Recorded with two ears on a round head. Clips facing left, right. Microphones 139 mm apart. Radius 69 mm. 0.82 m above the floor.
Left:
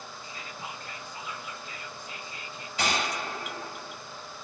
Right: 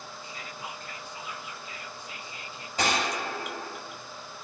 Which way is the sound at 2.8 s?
35° right (ahead or behind).